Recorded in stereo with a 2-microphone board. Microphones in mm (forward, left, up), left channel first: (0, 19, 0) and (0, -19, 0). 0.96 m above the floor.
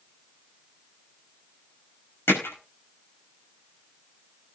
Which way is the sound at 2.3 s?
80° left.